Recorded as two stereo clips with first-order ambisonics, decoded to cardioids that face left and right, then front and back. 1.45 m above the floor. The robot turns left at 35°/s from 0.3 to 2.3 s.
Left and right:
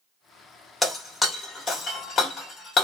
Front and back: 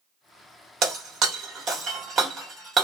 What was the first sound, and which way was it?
Breaking glass, 175° left.